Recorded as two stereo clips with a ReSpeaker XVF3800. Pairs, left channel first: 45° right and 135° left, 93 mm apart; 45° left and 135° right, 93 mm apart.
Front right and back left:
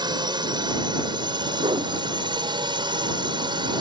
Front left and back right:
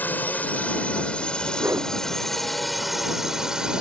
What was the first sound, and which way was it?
A drone, 115° left.